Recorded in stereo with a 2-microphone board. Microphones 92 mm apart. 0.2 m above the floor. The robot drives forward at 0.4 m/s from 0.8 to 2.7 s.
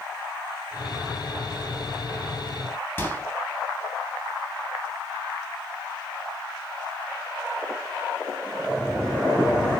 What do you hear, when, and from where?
3.0 s a microwave: 25° left (ahead or behind), 0.8 m